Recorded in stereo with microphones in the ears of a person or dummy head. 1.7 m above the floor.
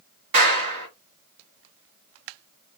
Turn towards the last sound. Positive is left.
turn(degrees=-55)  # may be behind; listen again after turning